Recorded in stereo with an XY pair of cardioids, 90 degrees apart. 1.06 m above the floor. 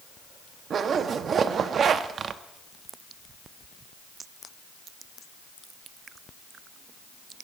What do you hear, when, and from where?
0.7 s a zipper: 60° right, 0.8 m